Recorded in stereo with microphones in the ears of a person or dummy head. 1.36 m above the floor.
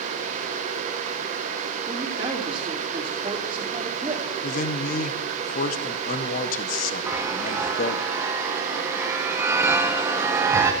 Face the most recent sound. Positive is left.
turn(degrees=-5)  # may be behind; listen again after turning